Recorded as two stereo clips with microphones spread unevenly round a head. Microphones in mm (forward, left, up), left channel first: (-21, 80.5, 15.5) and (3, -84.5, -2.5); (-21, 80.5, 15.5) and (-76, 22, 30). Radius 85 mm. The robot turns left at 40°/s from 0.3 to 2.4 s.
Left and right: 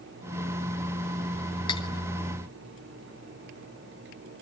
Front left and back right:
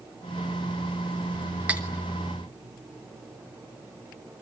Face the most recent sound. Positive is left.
turn(degrees=130)